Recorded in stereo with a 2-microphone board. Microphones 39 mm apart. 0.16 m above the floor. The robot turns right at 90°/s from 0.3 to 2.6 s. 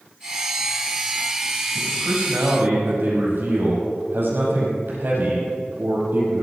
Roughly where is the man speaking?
Behind right.